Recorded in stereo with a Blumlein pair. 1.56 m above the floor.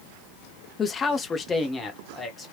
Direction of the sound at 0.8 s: 20° left.